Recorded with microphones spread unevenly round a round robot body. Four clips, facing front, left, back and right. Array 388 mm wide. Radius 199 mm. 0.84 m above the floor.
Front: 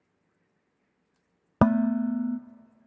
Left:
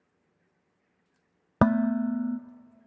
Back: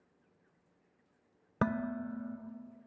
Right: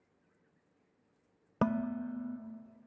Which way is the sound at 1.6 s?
35° left.